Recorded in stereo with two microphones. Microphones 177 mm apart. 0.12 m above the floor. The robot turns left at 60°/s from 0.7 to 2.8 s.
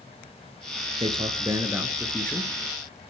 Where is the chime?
No chime in this recording.